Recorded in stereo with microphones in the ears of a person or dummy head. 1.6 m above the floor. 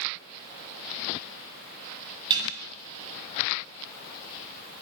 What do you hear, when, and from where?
2.3 s dishes clattering: 25° right (ahead or behind), 8 m